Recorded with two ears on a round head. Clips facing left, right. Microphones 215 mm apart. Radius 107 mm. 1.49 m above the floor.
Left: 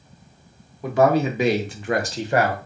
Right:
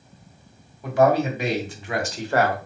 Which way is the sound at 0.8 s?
75° left (ahead or behind).